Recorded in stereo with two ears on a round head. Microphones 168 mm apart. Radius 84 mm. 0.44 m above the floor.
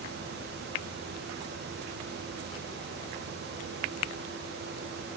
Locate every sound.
Only background noise.